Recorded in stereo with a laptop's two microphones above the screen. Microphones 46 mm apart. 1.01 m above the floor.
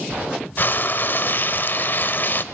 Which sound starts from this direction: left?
Frying, at 0.6 s.